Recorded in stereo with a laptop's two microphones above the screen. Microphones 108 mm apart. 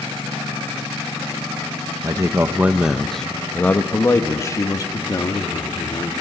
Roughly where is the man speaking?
Right.